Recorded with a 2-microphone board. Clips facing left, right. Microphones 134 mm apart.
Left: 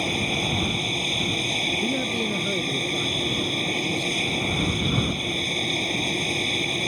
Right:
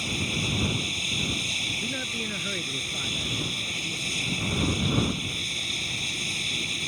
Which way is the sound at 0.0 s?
60° left (ahead or behind).